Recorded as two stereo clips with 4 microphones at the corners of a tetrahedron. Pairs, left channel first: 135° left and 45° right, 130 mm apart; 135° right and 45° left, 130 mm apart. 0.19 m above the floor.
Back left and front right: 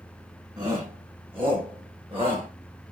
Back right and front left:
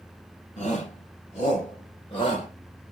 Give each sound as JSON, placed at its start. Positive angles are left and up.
{"t": 0.6, "sound": "a shout", "azimuth_deg": -100, "distance_m": 6.5}